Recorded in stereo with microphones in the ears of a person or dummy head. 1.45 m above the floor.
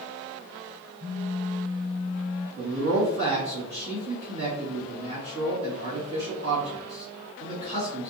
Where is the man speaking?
55° right (ahead or behind), 1.6 m.